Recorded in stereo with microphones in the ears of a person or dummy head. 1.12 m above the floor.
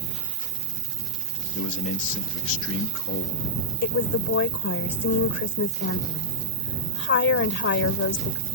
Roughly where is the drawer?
No drawer in this recording.